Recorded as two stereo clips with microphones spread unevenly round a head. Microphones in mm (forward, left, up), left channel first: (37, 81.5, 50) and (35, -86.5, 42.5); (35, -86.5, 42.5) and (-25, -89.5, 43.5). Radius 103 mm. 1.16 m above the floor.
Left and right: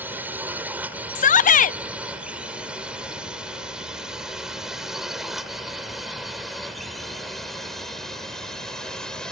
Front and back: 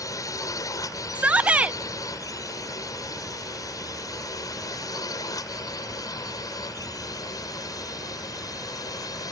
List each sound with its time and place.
0.0 s a drone: 10° right; by 9.3 s 5° left
1.1 s a shout: 115° left